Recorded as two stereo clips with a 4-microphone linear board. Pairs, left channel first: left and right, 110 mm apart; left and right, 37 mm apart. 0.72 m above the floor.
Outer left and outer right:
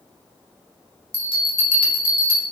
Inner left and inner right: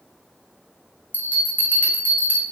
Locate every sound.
1.1 s a bell: 55° left (ahead or behind), 0.8 m